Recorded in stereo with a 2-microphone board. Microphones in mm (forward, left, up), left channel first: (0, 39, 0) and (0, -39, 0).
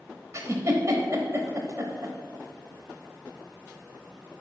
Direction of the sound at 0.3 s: 40° right (ahead or behind).